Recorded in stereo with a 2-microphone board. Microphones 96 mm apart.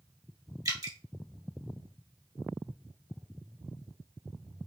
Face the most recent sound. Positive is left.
turn(degrees=-45)  # may be behind; listen again after turning